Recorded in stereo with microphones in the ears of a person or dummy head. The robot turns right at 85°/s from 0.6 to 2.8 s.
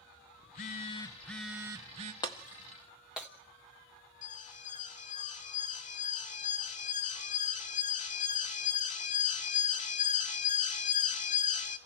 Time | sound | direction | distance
0.4 | a phone buzzing | 25° left (ahead or behind) | 0.7 m
2.2 | breaking glass | 15° left (ahead or behind) | 0.8 m
4.2 | an alarm | 35° left (ahead or behind) | 1.4 m